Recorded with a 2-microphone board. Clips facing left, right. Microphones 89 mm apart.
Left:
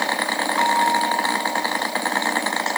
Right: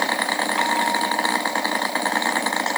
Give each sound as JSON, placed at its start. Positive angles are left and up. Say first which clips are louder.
{"t": 0.6, "sound": "a bell", "louder": "left 5 dB", "side_deg": 20}